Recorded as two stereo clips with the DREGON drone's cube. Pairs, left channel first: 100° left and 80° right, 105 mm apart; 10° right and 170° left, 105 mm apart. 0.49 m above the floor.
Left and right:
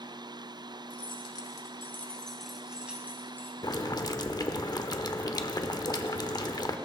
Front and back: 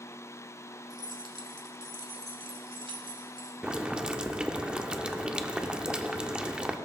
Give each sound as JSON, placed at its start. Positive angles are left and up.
{"t": 0.9, "sound": "keys jangling", "azimuth_deg": 125, "distance_m": 1.5}
{"t": 3.6, "sound": "boiling", "azimuth_deg": 95, "distance_m": 0.7}